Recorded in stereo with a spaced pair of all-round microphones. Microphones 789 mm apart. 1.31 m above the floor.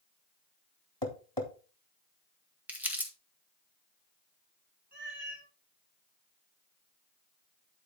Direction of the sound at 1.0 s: 30° left (ahead or behind).